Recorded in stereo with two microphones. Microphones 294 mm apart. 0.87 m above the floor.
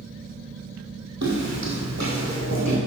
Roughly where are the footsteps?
Right.